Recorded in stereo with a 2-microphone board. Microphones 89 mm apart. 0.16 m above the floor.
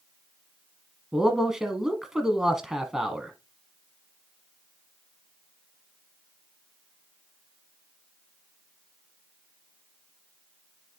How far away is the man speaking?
About 1.1 m.